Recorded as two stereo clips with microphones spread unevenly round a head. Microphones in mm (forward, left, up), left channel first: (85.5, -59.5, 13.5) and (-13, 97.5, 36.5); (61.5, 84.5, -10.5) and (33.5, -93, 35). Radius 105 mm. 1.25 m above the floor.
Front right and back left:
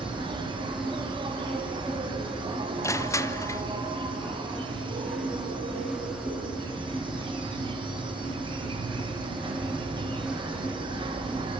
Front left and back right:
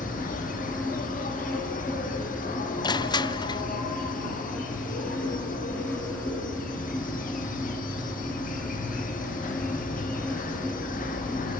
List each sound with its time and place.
0.0 s an insect: 55° left, 2.5 m
2.8 s crushing: 15° left, 0.9 m